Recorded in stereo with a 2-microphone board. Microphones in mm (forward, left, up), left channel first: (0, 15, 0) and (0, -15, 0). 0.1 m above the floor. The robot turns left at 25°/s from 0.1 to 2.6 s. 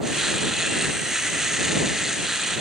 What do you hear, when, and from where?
Only background noise.